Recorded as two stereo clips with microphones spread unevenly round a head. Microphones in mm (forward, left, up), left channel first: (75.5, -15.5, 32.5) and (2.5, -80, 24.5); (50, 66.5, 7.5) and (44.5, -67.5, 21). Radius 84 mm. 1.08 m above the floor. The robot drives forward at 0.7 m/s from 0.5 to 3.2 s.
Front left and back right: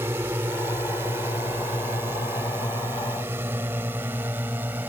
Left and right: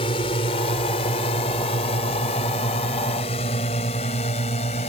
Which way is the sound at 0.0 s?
145° left.